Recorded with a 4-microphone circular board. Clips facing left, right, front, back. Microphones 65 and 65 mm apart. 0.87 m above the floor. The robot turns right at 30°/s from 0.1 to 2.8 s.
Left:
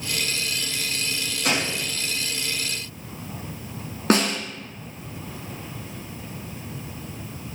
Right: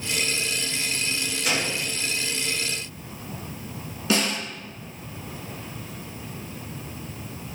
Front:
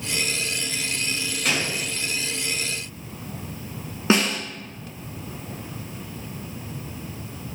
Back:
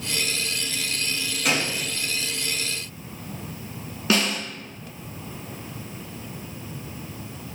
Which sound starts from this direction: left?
A gunshot, at 1.4 s.